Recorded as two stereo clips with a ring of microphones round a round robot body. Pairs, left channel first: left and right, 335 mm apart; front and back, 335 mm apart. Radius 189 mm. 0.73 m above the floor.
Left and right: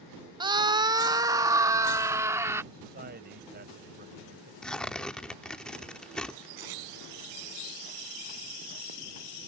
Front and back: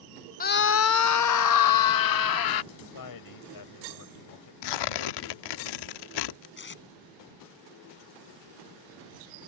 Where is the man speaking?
25° right.